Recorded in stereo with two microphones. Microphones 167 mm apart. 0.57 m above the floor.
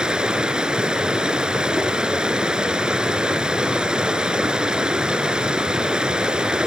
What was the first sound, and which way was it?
Running water, 5° right (ahead or behind).